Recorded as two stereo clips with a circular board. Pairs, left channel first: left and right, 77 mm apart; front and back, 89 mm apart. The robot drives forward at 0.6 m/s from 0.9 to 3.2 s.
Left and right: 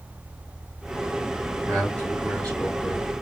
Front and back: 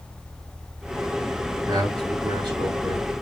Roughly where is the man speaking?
Behind.